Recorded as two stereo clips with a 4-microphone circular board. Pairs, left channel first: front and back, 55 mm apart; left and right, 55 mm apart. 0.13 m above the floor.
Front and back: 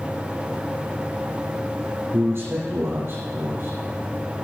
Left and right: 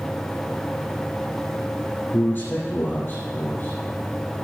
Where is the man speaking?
145° left, 4.5 m.